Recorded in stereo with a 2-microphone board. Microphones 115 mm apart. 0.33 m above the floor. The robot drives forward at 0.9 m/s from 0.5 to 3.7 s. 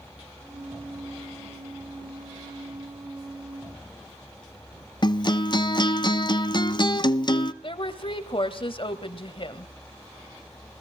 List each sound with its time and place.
5.0 s a guitar: 40° left (ahead or behind), 0.7 m
7.6 s a woman speaking: 50° left (ahead or behind), 1.3 m